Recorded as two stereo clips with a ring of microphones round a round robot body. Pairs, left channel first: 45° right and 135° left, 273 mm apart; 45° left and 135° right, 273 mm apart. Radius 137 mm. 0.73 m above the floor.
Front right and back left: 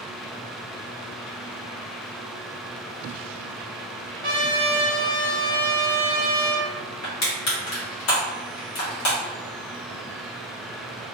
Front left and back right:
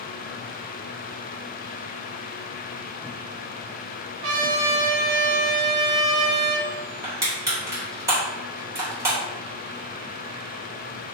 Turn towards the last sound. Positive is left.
turn(degrees=-60)